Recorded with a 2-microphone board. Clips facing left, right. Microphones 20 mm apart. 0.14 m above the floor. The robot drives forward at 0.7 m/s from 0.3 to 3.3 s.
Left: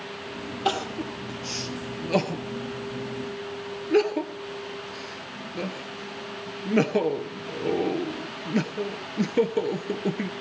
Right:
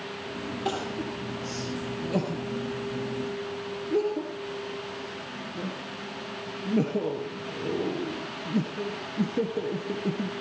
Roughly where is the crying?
Left.